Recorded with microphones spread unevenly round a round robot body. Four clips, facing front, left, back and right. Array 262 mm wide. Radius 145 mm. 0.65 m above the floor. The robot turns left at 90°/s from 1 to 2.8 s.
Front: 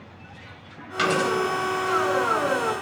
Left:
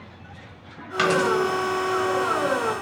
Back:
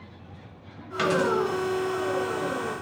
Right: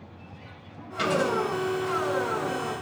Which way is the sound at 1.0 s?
95° left.